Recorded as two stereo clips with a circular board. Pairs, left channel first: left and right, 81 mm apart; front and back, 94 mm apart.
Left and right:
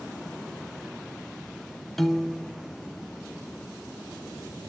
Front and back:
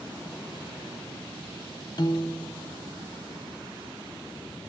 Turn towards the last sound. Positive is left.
turn(degrees=5)